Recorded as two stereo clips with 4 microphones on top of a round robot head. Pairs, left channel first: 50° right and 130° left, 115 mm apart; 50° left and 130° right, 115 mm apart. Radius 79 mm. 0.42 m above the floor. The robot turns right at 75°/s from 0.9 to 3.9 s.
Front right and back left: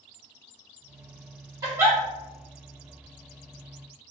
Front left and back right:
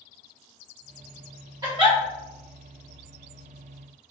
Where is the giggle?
175° right, 1.4 m; by 2.0 s 150° right, 1.4 m.